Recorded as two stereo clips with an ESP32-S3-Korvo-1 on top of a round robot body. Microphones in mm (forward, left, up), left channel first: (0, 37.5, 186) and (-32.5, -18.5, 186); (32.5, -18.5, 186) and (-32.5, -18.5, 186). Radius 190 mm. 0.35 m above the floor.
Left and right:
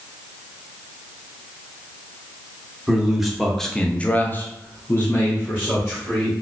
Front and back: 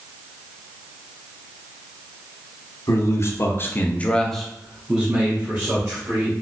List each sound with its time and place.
2.9 s a man speaking: 40° right, 1.2 m; by 6.3 s 120° left, 1.9 m